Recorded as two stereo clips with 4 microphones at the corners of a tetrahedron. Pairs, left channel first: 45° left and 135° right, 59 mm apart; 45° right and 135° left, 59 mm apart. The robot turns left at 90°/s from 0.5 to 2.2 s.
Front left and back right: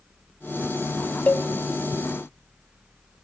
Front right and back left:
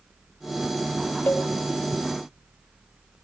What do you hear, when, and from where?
1.3 s a cowbell: 10° right, 0.7 m; by 1.5 s 30° right, 0.7 m